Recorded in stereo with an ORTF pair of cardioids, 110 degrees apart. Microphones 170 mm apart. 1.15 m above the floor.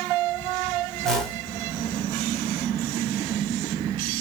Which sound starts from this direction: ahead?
A whoosh, at 1.0 s.